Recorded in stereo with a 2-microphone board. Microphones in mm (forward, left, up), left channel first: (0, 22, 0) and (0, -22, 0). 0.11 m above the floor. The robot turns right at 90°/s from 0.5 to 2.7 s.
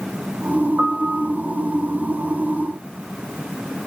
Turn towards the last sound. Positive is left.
turn(degrees=85)